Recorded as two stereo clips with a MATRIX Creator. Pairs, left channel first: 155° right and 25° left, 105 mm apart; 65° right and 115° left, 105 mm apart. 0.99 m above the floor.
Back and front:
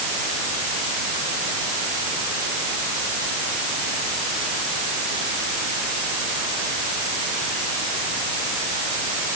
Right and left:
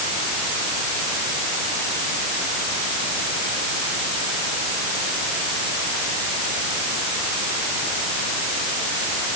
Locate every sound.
Only background noise.